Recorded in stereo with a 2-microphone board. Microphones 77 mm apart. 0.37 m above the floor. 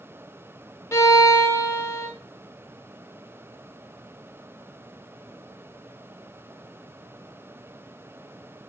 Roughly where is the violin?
Left.